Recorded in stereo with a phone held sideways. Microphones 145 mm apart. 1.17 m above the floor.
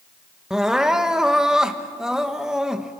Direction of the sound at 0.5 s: 5° right (ahead or behind).